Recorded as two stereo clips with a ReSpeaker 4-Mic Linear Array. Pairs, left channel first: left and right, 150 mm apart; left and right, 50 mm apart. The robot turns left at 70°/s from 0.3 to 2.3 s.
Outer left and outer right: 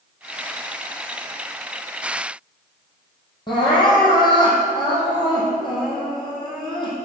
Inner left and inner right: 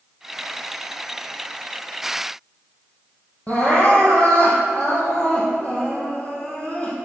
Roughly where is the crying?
Left.